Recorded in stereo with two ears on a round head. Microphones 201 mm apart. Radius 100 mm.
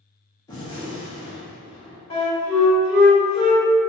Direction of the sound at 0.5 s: 15° left (ahead or behind).